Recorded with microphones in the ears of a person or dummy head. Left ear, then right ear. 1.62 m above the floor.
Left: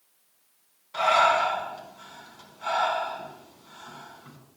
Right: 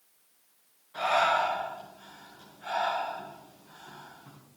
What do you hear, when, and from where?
0.9 s breathing: 60° left (ahead or behind), 4.5 m